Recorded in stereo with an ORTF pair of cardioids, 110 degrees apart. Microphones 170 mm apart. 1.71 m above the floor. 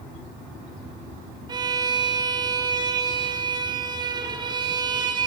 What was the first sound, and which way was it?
A violin, 25° right.